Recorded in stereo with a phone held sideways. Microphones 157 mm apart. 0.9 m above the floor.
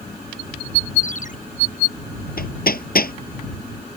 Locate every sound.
1.0 s a ringtone: 55° left (ahead or behind)
2.4 s hammering: 70° left (ahead or behind)